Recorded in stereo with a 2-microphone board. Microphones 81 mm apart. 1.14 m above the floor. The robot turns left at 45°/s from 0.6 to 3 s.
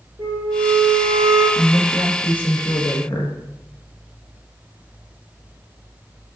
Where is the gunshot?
I don't hear a gunshot.